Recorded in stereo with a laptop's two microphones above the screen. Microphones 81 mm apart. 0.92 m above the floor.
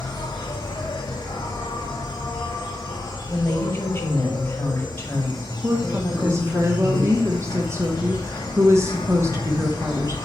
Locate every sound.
0.0 s an insect: 65° left (ahead or behind), 1.5 m
3.3 s a woman speaking: 35° left (ahead or behind), 4 m
5.6 s a woman speaking: 35° right (ahead or behind), 1.0 m